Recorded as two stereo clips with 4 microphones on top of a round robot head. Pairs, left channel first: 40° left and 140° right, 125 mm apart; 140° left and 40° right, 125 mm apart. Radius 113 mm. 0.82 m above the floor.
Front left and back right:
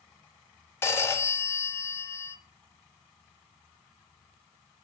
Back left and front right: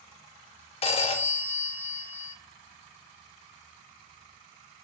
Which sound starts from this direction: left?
A phone ringing, at 0.8 s.